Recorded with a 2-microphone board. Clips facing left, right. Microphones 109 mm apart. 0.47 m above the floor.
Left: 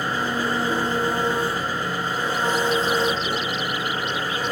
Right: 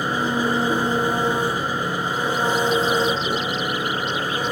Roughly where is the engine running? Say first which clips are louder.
Right 3 dB; centre.